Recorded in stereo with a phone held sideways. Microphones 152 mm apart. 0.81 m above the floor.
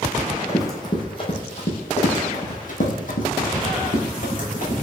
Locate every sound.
0.2 s running footsteps: 15° left (ahead or behind), 1.6 m; by 4.8 s 60° left (ahead or behind), 2.5 m